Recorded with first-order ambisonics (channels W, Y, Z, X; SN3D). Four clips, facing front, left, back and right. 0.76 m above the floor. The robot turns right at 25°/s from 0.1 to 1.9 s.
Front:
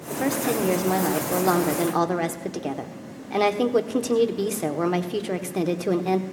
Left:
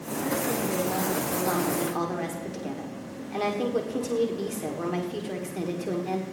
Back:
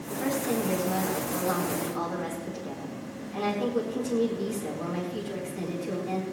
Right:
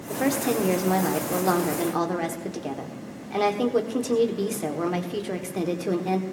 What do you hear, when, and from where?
0.1 s a woman speaking: 60° right, 1.6 m; by 6.2 s 15° right, 1.6 m